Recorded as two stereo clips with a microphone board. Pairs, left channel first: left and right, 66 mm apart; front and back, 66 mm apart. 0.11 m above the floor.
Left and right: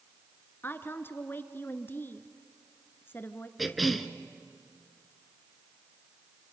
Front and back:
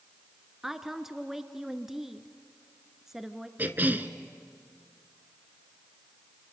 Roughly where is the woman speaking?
Left.